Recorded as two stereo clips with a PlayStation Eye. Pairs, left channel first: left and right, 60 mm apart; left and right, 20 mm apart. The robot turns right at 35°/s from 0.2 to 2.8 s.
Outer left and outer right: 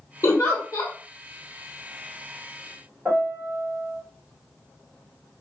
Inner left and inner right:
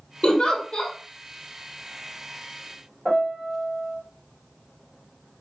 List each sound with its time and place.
0.2 s a giggle: 60° left (ahead or behind), 1.3 m; by 0.9 s 65° left (ahead or behind), 1.3 m
3.0 s a piano: 10° right (ahead or behind), 2.0 m